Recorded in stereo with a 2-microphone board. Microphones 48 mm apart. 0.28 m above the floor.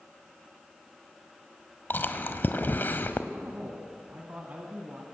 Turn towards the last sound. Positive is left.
turn(degrees=-35)  # may be behind; listen again after turning